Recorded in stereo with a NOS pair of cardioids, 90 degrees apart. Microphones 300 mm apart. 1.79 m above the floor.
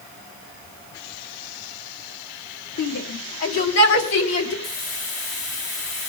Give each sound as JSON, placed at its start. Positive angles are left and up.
{"t": 2.8, "sound": "a shout", "azimuth_deg": 65, "distance_m": 4.0}
{"t": 4.6, "sound": "a hiss", "azimuth_deg": 65, "distance_m": 4.0}